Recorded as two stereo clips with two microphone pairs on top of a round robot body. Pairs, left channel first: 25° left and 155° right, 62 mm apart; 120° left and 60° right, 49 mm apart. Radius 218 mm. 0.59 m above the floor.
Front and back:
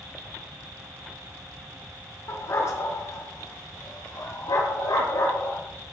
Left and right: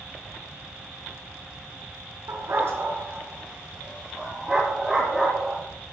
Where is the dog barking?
30° right, 2.5 m; by 5.6 s 20° left, 5.5 m.